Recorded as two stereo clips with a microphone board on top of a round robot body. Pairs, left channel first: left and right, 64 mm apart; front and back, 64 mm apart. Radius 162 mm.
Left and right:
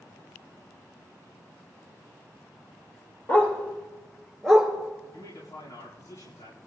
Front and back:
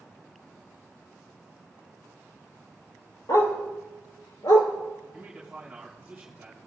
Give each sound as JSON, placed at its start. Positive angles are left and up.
{"t": 3.3, "sound": "a dog barking", "azimuth_deg": 25, "distance_m": 3.5}
{"t": 5.1, "sound": "a man speaking", "azimuth_deg": 100, "distance_m": 5.5}